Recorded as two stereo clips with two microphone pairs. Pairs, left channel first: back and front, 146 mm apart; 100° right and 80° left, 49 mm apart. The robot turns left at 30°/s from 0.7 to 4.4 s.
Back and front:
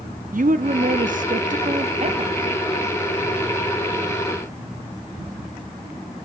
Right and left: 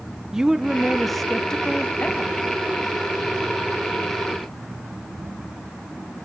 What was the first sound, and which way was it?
A woman speaking, straight ahead.